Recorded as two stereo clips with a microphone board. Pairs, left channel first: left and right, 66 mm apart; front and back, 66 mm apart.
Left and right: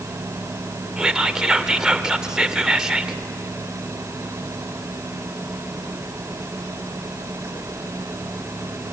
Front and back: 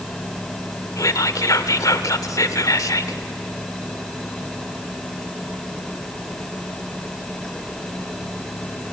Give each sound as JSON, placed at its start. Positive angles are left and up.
{"t": 1.0, "sound": "whispering", "azimuth_deg": -10, "distance_m": 1.8}